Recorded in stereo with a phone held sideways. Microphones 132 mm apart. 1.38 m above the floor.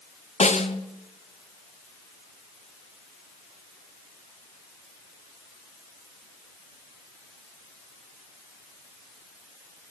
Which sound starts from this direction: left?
A snare drum, at 0.4 s.